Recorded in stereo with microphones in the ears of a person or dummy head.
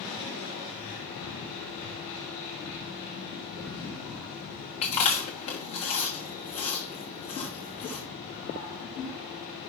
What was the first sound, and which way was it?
Chewing, 30° left (ahead or behind).